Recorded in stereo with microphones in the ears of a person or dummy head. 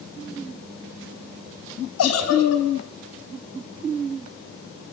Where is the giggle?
75° left (ahead or behind), 5 m.